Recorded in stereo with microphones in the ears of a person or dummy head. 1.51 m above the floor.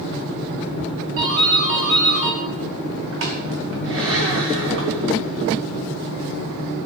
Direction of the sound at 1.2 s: 65° right (ahead or behind).